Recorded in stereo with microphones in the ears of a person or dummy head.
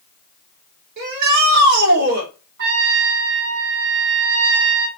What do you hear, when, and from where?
1.0 s a shout: 55° right (ahead or behind), 4 m
2.6 s a trumpet: 60° right (ahead or behind), 3 m